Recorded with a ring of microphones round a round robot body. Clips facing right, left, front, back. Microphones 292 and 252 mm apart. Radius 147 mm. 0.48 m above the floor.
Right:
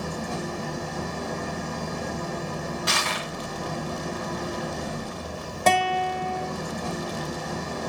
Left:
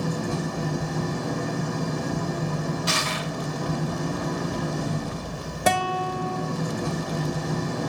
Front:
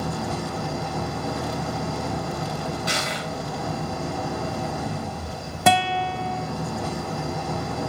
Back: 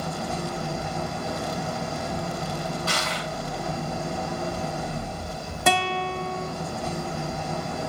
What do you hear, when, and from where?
0.0 s an engine running: 30° left, 7 m
2.9 s crushing: 70° right, 1.7 m
5.7 s a guitar: 10° left, 1.1 m